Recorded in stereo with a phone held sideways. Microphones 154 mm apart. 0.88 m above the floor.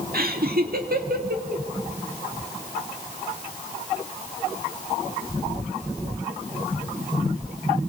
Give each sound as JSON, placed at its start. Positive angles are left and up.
{"t": 0.1, "sound": "laughter", "side_deg": -70, "distance_m": 1.9}